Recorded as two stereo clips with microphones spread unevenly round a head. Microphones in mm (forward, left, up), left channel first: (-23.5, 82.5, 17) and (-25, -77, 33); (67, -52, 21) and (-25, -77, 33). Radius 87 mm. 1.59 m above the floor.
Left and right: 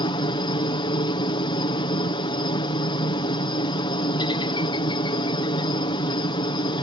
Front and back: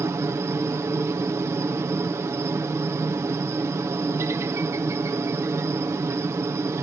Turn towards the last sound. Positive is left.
turn(degrees=135)